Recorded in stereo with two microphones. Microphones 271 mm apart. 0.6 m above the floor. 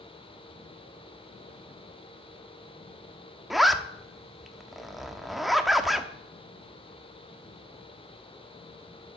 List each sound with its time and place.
3.5 s a zipper: centre (ahead or behind), 0.9 m